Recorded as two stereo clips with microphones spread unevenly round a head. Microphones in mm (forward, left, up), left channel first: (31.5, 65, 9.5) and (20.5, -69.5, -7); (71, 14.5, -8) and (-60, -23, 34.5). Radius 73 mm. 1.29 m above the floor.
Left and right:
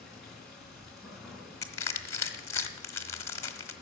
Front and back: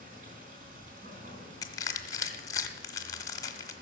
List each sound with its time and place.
0.0 s running water: 170° left, 4 m
1.6 s crushing: 95° left, 1.2 m